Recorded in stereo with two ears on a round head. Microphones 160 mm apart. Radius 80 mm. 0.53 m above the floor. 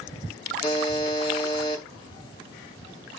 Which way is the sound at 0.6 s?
25° left (ahead or behind).